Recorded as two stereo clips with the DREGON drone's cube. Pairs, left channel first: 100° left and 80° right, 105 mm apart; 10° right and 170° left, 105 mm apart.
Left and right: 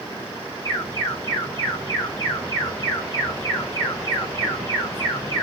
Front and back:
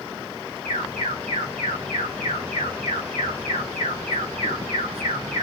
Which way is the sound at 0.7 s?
160° left.